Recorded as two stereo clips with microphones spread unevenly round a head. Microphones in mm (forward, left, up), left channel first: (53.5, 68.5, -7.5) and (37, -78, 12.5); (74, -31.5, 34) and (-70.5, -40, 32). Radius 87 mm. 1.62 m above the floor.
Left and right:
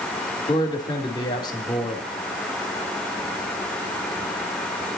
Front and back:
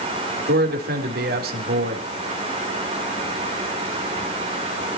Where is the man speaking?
150° left, 3.5 m.